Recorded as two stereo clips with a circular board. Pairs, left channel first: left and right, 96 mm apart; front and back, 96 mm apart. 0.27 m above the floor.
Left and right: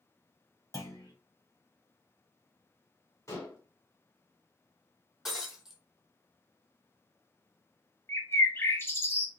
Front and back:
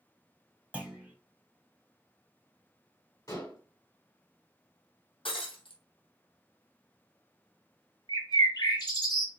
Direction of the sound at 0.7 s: 110° left.